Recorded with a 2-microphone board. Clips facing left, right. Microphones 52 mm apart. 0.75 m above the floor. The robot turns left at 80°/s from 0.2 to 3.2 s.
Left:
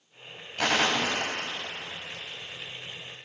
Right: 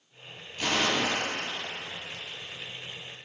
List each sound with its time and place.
0.6 s a gunshot: 80° left, 1.6 m; by 2.2 s 35° right (ahead or behind), 1.6 m